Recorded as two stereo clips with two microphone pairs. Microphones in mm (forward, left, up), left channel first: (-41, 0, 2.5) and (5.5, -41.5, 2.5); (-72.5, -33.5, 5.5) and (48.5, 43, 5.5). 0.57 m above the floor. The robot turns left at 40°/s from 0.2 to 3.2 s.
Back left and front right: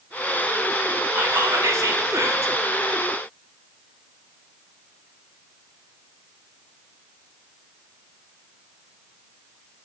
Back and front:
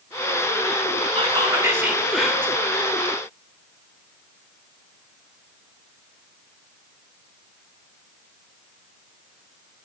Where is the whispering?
15° right, 1.9 m; by 2.5 s 70° right, 1.9 m.